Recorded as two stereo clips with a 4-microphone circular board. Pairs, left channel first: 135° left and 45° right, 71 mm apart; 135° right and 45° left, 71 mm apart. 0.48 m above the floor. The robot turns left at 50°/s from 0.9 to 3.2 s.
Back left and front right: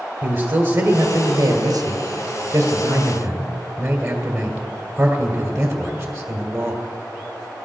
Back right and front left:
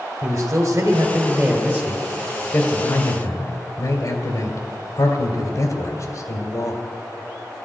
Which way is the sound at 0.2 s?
5° right.